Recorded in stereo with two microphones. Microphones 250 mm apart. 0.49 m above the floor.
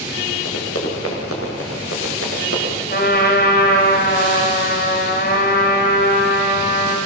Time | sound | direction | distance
0.5 | running footsteps | 65° left (ahead or behind) | 7 m
2.9 | a trumpet | 40° left (ahead or behind) | 3 m